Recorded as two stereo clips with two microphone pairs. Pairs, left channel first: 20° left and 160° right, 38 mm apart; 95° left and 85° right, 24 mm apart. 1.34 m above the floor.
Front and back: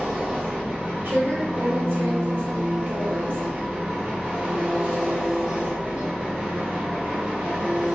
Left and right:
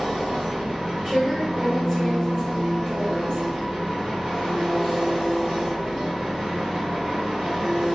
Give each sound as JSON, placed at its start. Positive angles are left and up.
{"t": 0.0, "sound": "an engine running", "azimuth_deg": -130, "distance_m": 1.1}
{"t": 1.1, "sound": "a woman speaking", "azimuth_deg": -145, "distance_m": 0.9}